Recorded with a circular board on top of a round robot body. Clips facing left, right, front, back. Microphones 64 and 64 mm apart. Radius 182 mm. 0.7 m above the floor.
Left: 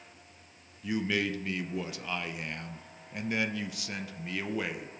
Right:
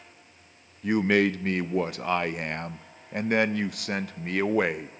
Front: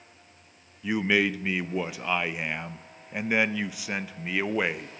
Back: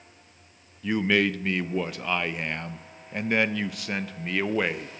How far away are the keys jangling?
I don't hear keys jangling.